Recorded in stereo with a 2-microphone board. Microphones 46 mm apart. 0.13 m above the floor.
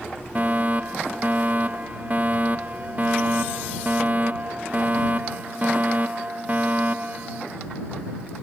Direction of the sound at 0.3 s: 35° right (ahead or behind).